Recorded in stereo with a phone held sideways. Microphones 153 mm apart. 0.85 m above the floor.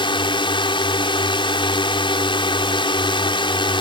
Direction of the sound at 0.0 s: 35° left (ahead or behind).